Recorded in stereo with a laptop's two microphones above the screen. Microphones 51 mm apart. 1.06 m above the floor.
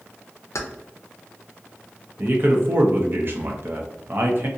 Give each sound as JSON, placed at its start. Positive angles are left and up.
{"t": 0.6, "sound": "keys jangling", "side_deg": 70, "distance_m": 0.5}
{"t": 2.2, "sound": "a man speaking", "side_deg": -50, "distance_m": 0.5}